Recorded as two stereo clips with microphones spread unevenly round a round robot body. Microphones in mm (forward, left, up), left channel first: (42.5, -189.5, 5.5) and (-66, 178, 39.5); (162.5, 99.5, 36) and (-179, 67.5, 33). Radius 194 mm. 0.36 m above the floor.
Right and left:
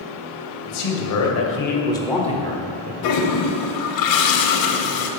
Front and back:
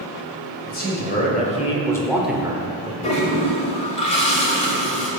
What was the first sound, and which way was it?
A man speaking, 55° right.